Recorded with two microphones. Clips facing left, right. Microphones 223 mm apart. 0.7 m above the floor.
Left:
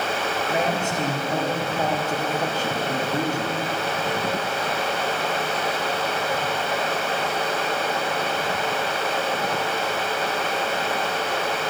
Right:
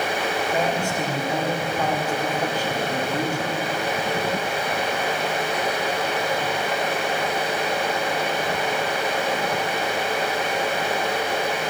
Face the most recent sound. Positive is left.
turn(degrees=20)  # may be behind; listen again after turning